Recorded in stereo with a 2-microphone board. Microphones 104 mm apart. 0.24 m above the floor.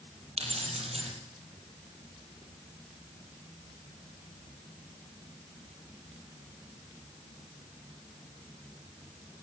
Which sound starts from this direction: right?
Keys jangling, at 0.4 s.